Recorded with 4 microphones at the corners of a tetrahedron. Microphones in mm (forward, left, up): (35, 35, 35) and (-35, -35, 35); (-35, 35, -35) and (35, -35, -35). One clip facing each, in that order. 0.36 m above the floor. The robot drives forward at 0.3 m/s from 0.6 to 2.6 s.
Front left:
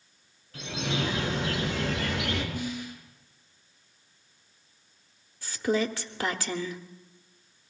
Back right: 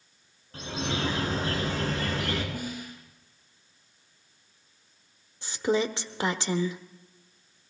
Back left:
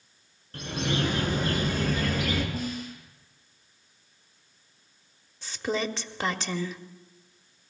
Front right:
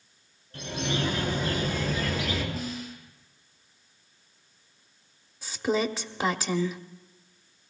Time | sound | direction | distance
0.5 | a bird | 170° left | 3 m
2.5 | a snare drum | straight behind | 4 m
5.4 | a woman speaking | 115° right | 0.8 m